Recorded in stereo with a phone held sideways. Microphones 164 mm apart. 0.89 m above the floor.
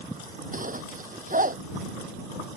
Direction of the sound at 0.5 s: 55° right (ahead or behind).